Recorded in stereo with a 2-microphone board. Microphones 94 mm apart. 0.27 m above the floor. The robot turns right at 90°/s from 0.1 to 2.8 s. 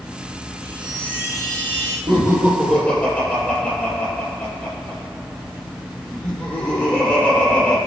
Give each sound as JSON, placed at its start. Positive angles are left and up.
{"t": 0.6, "sound": "a chime", "azimuth_deg": -30, "distance_m": 3.0}
{"t": 2.1, "sound": "laughter", "azimuth_deg": -50, "distance_m": 5.5}